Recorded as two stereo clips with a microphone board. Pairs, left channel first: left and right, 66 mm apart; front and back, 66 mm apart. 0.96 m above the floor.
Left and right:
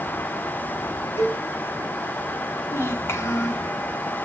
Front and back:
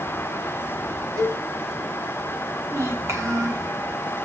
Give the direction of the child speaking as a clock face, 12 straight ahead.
7 o'clock.